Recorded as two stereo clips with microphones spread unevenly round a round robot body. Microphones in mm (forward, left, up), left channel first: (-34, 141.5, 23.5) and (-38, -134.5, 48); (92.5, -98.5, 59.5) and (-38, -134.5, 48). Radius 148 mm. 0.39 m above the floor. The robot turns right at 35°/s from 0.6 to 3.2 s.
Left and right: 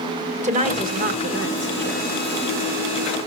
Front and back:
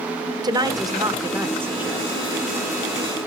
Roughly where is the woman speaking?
Behind right.